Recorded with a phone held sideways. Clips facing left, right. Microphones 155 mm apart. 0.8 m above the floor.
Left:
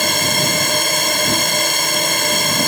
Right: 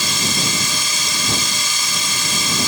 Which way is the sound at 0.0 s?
55° left (ahead or behind).